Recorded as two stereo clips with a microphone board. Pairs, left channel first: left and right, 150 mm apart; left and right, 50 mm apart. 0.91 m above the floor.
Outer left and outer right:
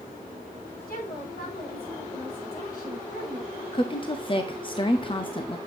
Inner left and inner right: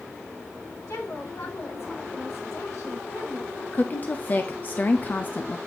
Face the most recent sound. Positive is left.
turn(degrees=35)  # may be behind; listen again after turning